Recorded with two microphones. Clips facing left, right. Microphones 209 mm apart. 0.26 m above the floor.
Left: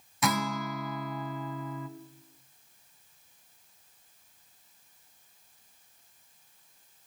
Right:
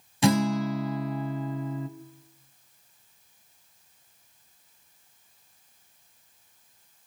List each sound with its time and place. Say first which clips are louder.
0.2 s a guitar: right 8 dB; 30° right (ahead or behind), 0.8 m